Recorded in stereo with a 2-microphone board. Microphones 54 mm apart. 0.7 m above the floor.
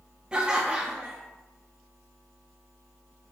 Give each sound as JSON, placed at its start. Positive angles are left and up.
{"t": 0.3, "sound": "laughter", "side_deg": -15, "distance_m": 0.5}